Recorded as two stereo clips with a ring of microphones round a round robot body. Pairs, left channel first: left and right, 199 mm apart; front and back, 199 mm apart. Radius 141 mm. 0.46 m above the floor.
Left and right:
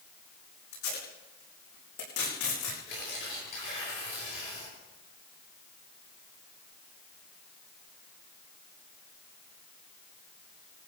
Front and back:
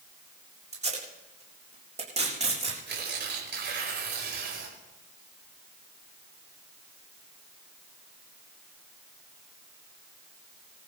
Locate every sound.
0.7 s tape being pulled: 125° left, 7 m
2.9 s tearing paper: 150° left, 7 m